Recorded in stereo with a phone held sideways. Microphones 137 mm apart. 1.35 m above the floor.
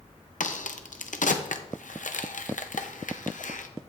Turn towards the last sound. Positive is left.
turn(degrees=80)